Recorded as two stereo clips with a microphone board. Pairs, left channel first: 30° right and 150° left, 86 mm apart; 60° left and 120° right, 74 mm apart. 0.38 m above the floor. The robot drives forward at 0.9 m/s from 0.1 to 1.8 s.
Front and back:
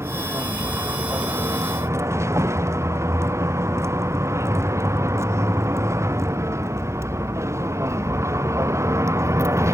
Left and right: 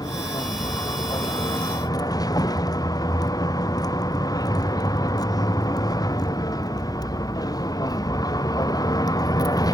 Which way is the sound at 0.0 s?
90° left.